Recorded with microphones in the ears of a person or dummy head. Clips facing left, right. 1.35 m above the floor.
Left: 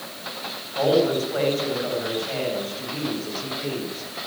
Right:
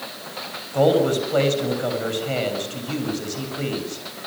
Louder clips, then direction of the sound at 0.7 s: Right 2 dB; 65° right (ahead or behind).